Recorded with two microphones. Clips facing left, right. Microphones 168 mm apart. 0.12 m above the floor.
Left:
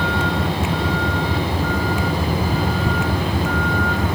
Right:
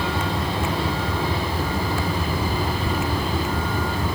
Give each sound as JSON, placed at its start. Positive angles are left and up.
{"t": 0.0, "sound": "a vehicle", "side_deg": 65}